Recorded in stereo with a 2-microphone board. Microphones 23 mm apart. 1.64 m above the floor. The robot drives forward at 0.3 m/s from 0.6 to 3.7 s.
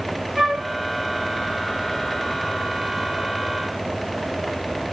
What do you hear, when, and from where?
0.4 s a flute: 20° right (ahead or behind), 2 m